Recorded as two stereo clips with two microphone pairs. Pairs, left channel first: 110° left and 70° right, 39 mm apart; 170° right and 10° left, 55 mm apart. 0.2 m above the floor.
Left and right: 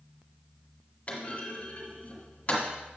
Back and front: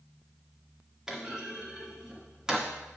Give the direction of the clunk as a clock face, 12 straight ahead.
9 o'clock.